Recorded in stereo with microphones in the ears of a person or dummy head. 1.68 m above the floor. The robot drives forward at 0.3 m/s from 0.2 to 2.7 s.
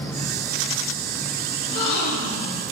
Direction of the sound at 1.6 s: 55° left (ahead or behind).